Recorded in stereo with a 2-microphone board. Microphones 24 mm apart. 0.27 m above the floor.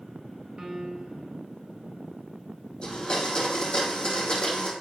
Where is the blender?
40° left (ahead or behind), 2 m.